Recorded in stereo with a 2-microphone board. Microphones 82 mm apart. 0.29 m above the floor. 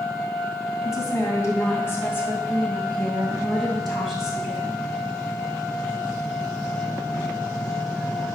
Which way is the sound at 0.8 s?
45° left (ahead or behind).